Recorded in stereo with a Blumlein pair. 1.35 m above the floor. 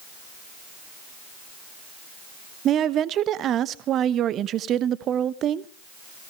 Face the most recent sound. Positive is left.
turn(degrees=-30)